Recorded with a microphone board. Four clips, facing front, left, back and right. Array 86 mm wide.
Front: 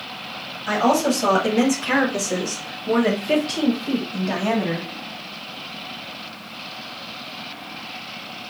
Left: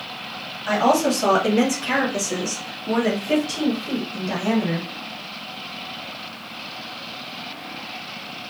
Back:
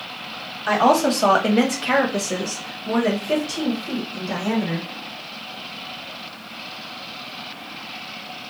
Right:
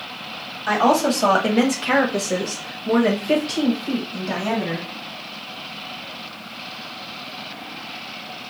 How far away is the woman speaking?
About 1.7 m.